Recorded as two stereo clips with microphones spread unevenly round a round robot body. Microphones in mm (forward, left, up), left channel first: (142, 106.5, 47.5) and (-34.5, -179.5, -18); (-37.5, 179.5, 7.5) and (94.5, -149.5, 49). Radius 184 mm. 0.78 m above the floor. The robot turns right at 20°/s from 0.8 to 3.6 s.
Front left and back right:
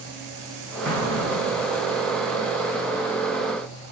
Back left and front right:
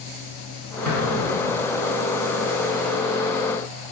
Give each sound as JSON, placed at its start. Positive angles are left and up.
{"t": 0.8, "sound": "an explosion", "azimuth_deg": -25, "distance_m": 4.5}